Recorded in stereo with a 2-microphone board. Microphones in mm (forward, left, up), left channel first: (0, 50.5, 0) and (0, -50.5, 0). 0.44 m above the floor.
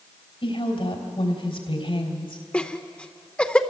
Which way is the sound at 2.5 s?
10° left (ahead or behind).